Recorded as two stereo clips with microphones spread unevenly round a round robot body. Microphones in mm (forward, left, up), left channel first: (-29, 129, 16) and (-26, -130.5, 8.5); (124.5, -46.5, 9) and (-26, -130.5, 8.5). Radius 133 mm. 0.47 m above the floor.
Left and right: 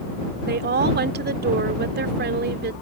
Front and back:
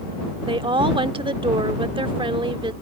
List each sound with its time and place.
0.5 s a woman speaking: 105° right